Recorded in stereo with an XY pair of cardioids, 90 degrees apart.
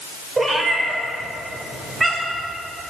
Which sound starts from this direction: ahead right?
A cat meowing, at 0.4 s.